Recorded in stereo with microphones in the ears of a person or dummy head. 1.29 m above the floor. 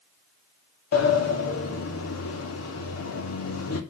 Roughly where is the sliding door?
Left.